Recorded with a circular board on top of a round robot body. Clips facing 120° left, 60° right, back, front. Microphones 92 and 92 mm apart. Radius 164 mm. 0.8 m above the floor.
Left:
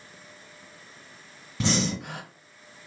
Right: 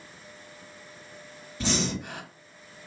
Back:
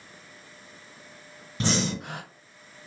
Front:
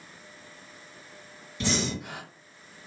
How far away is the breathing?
About 1.7 m.